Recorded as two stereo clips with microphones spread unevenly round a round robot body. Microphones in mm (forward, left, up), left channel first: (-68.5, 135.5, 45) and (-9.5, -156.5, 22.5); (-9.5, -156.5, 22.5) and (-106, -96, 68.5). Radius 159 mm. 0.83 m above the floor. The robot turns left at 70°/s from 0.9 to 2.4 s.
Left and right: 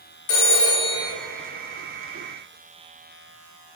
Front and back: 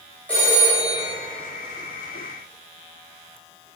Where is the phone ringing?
50° left, 2 m; by 1.1 s 40° left, 2 m.